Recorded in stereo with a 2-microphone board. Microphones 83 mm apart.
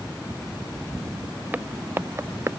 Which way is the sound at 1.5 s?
20° right (ahead or behind).